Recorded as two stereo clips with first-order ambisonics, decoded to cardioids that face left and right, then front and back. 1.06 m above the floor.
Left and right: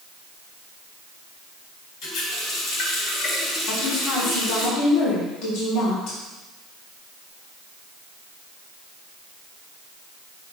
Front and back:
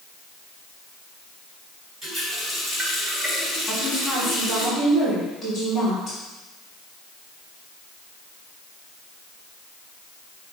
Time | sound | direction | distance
2.0 | a running tap | 110° left | 3.5 m
3.7 | a woman speaking | 100° left | 3 m